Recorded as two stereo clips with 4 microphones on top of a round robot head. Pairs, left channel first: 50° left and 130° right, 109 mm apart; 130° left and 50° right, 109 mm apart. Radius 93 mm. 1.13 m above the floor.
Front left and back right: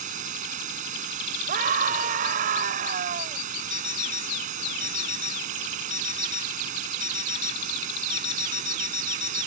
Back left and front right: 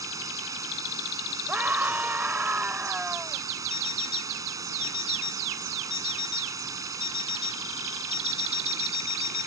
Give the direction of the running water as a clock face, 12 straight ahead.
4 o'clock.